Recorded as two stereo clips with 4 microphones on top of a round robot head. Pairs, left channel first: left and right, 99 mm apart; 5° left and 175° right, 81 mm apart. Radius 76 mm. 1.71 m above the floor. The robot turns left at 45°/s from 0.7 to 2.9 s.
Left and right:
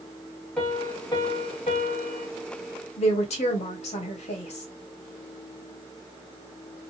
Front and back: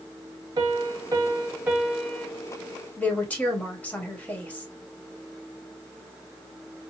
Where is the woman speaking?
80° left, 1.8 m.